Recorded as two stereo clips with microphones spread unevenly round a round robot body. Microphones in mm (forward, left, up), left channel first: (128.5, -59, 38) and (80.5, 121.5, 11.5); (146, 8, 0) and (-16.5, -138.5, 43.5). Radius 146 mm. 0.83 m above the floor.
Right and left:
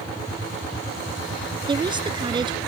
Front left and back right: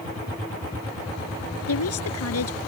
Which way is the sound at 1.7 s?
40° left.